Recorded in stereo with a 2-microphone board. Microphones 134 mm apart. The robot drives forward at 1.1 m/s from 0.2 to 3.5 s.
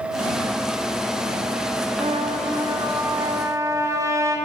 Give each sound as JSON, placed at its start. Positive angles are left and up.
{"t": 2.0, "sound": "a trumpet", "side_deg": -45, "distance_m": 1.4}